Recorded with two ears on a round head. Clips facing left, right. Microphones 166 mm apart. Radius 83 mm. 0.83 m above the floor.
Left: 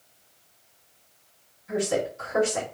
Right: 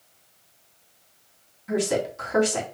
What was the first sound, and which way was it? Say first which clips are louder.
A woman speaking: right 2 dB; 70° right (ahead or behind).